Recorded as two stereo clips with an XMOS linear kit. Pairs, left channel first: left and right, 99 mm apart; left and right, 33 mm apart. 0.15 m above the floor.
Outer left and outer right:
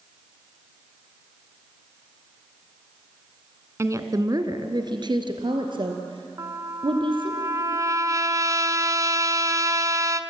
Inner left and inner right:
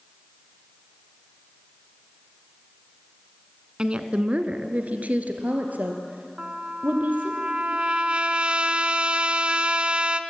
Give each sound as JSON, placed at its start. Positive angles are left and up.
{"t": 3.8, "sound": "a woman speaking", "side_deg": -30, "distance_m": 1.2}
{"t": 6.4, "sound": "a trumpet", "side_deg": -35, "distance_m": 0.8}